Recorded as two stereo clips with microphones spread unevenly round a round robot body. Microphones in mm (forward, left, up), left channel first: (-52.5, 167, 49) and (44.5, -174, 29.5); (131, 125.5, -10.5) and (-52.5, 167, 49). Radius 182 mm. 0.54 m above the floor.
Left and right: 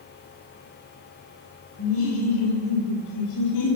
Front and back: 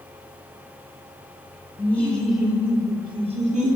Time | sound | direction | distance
1.8 | laughter | 55° left | 2 m